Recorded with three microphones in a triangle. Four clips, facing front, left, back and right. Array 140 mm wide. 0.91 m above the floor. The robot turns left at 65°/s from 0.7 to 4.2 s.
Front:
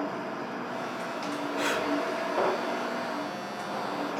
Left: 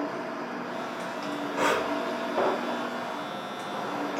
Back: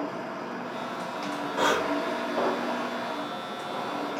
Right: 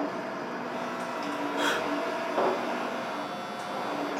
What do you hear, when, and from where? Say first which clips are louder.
1.6 s breathing: left 4 dB, back 5 dB; 140° left, 1.2 m; by 1.9 s 120° left, 1.2 m